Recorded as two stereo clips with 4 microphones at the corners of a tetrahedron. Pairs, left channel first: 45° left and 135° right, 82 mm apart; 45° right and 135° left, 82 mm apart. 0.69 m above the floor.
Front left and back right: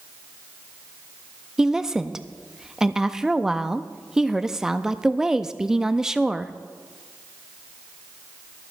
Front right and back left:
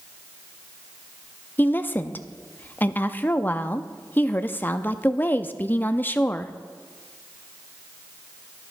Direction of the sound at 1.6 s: 60° right.